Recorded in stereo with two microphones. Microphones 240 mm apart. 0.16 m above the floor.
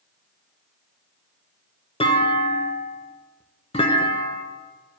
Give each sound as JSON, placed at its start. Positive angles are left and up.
{"t": 2.0, "sound": "a clunk", "side_deg": 25, "distance_m": 0.7}